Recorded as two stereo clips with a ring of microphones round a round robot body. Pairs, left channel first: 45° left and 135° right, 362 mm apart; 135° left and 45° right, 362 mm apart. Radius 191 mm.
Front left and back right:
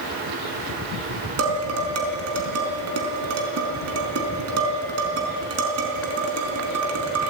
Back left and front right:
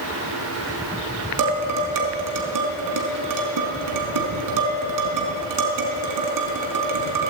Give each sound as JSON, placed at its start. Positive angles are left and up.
{"t": 1.4, "sound": "dishes clattering", "azimuth_deg": -85, "distance_m": 4.5}